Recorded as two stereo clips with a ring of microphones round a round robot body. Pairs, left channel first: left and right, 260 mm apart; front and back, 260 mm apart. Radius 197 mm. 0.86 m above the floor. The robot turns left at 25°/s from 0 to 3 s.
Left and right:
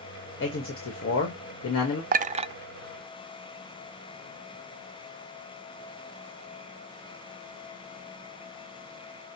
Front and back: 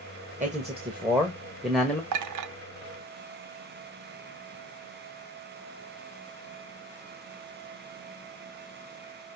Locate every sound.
0.4 s a man speaking: 125° left, 1.4 m; by 2.0 s 85° left, 1.4 m
2.1 s a clink: 155° right, 0.5 m; by 2.5 s 165° right, 0.5 m